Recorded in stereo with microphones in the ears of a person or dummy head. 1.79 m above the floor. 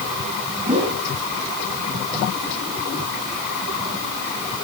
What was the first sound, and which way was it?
A whoosh, 35° right (ahead or behind).